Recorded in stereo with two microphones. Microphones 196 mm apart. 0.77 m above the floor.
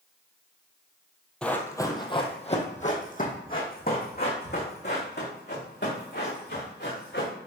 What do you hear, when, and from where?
1.4 s running footsteps: 5° left (ahead or behind), 1.2 m; by 7.3 s 65° left (ahead or behind), 4.5 m